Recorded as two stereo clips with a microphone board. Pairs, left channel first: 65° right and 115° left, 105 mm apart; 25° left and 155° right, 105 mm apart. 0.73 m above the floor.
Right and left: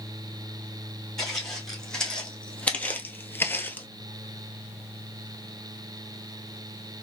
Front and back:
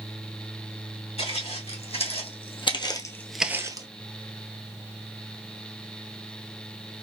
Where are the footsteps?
20° left, 3 m; by 3.9 s 135° right, 0.9 m.